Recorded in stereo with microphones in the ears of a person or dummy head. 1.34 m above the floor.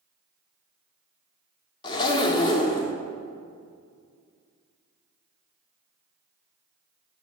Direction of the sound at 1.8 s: 25° left (ahead or behind).